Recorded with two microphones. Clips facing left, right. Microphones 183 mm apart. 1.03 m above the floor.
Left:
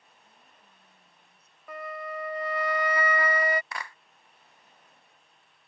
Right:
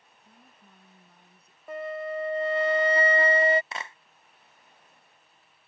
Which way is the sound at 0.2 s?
55° right (ahead or behind).